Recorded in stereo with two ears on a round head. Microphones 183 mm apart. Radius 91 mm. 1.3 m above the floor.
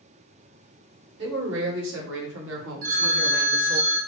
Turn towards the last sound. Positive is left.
turn(degrees=-45)  # may be behind; listen again after turning